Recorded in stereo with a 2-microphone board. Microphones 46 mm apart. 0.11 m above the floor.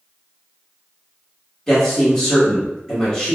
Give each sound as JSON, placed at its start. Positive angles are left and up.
{"t": 1.7, "sound": "a man speaking", "side_deg": 15, "distance_m": 1.7}